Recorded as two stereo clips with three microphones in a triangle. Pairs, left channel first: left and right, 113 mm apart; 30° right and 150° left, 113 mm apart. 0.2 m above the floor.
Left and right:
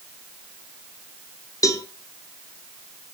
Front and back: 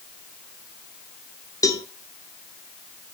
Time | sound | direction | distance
1.6 | a cowbell | 30° left | 0.8 m